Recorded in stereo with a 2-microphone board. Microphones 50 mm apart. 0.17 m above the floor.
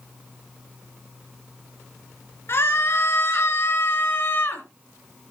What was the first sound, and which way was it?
A scream, 55° left (ahead or behind).